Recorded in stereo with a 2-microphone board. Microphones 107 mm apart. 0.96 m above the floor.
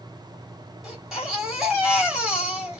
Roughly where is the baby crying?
Centre.